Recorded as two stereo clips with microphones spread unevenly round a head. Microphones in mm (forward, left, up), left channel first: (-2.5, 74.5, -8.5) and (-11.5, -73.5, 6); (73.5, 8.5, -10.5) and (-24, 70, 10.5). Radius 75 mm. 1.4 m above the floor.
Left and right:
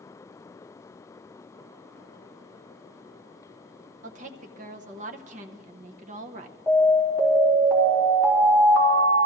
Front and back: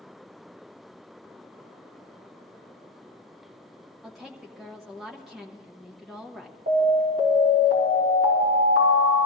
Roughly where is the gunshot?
I don't hear a gunshot.